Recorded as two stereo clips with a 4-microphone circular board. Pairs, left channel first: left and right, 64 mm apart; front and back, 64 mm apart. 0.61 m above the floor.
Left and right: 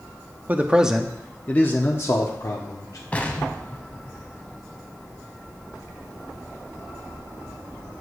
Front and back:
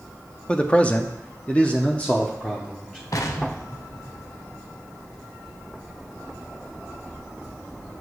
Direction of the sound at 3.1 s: 20° left.